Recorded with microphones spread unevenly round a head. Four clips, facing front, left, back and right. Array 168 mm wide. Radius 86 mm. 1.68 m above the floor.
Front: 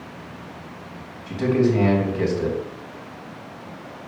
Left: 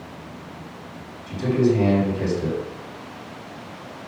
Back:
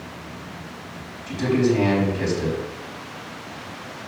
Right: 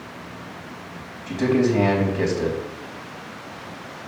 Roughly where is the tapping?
No tapping in this recording.